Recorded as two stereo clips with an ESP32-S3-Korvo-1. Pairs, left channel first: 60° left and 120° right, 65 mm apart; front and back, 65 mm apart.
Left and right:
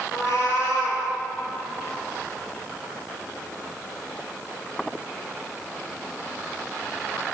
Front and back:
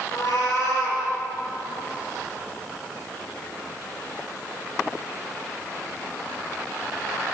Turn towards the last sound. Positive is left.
turn(degrees=20)